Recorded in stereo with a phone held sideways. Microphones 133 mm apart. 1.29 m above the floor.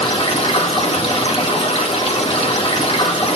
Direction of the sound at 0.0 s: 45° left (ahead or behind).